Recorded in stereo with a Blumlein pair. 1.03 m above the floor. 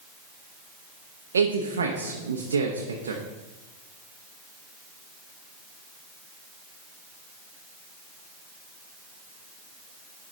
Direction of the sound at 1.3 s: 70° right.